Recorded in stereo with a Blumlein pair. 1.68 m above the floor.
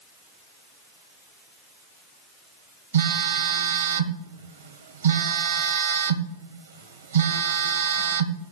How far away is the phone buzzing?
About 1.1 m.